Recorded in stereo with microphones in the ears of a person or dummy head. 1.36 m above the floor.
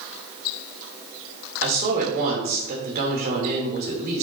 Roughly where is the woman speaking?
Right.